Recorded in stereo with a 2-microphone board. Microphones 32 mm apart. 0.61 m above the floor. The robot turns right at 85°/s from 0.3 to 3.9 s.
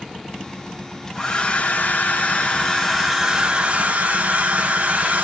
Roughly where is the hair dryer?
Ahead.